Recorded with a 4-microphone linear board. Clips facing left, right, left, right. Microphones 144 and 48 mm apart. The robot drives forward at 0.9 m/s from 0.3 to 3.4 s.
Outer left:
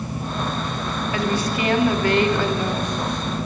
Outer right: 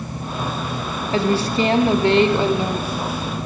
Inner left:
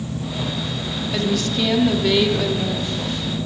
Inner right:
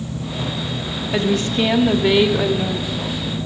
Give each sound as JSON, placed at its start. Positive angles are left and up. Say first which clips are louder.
{"t": 1.1, "sound": "a woman speaking", "louder": "outer right 6 dB, inner right 3 dB", "side_deg": -30, "distance_m": 1.0}